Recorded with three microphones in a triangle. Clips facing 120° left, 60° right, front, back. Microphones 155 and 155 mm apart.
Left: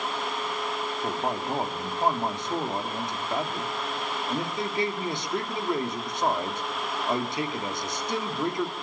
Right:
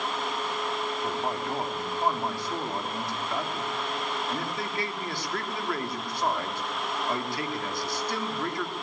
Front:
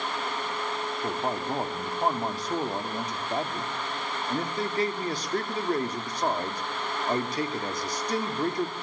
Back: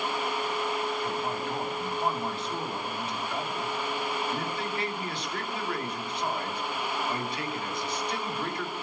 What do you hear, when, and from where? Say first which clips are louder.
1.0 s a man speaking: left 4 dB, front 2 dB; 50° left, 2.5 m